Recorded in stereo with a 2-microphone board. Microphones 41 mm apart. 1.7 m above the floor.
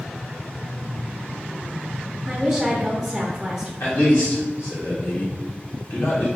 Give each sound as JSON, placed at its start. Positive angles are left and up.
{"t": 2.3, "sound": "a woman speaking", "side_deg": -10, "distance_m": 0.6}
{"t": 3.8, "sound": "a man speaking", "side_deg": 70, "distance_m": 1.2}